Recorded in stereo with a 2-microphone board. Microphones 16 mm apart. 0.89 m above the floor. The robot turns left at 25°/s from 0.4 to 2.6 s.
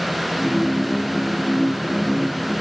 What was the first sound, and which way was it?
Only background noise.